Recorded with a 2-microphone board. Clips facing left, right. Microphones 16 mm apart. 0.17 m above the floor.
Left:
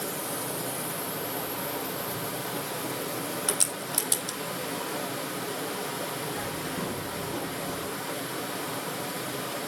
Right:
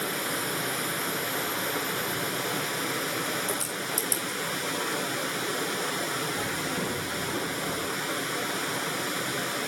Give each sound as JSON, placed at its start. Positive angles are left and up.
{"t": 0.0, "sound": "running water", "side_deg": -60, "distance_m": 1.6}
{"t": 3.5, "sound": "a crack", "side_deg": 55, "distance_m": 1.1}
{"t": 6.3, "sound": "a bird", "side_deg": -15, "distance_m": 3.5}